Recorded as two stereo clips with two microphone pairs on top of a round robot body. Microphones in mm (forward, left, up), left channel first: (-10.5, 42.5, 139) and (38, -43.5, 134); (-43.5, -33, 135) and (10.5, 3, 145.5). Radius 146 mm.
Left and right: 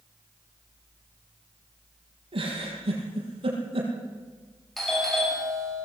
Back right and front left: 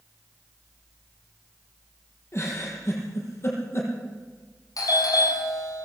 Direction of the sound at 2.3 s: 95° right.